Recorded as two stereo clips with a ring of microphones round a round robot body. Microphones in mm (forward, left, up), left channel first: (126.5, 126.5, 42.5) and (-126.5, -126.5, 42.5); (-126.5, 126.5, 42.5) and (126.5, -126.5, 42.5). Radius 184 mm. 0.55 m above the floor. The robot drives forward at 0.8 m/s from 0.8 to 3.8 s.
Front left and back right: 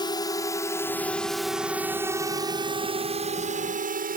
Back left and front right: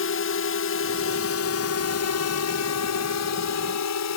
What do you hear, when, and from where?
0.0 s a drone: 115° left; by 4.2 s 165° left